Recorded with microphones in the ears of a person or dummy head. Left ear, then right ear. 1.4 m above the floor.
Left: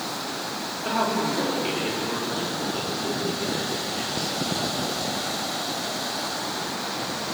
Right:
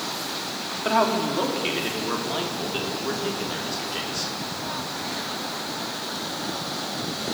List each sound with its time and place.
0.8 s a man speaking: 35° right (ahead or behind), 3.5 m; by 4.3 s 85° right, 5 m